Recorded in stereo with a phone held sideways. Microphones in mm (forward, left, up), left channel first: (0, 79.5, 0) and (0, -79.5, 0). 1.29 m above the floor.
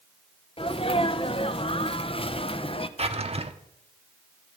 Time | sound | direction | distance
0.6 | a sneeze | 35° left (ahead or behind) | 1.0 m
3.0 | a drawer | 40° right (ahead or behind) | 1.0 m